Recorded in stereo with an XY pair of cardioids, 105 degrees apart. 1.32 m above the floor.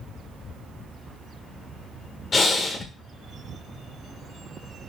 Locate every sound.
2.3 s breathing: 45° left, 1.0 m